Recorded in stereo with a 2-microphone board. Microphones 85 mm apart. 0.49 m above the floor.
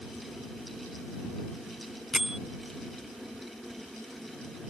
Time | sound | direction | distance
2.1 | a bell | 5° right (ahead or behind) | ?